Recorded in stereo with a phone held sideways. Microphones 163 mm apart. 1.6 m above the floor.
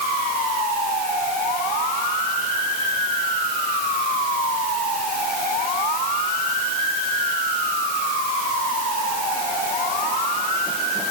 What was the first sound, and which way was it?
Only background noise.